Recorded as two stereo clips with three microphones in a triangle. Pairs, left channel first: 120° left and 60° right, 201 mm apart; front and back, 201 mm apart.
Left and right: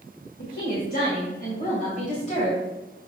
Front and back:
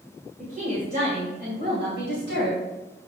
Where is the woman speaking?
135° left, 2.5 m; by 2.6 s 175° left, 2.5 m.